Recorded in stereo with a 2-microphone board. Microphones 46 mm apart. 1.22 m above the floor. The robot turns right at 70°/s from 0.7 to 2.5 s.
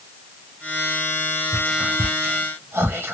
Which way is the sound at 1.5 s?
15° right (ahead or behind).